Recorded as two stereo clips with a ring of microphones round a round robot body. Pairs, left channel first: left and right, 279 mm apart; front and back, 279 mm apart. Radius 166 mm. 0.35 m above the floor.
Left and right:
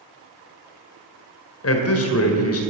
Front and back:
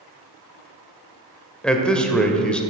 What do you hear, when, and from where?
1.6 s a man speaking: 85° left, 2.0 m